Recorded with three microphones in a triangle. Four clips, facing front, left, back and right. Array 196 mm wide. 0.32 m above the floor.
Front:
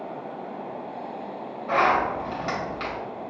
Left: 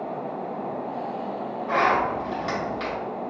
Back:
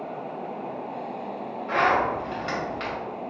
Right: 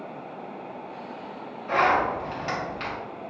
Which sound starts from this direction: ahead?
A zipper, at 1.7 s.